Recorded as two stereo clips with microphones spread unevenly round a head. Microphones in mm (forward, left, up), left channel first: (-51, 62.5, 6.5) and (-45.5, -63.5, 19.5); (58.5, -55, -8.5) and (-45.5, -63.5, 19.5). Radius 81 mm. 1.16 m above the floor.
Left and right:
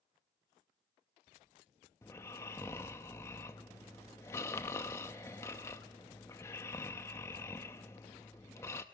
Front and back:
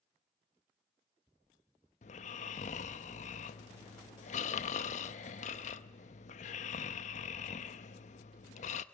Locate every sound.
2.0 s snoring: 15° left, 0.6 m